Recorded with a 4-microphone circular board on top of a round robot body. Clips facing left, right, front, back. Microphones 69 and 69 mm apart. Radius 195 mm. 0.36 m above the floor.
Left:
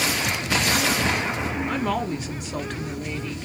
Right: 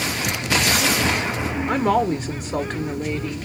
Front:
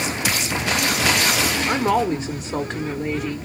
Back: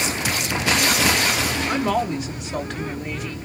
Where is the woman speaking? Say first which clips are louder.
Right 9 dB, front 3 dB; 40° right, 1.5 m.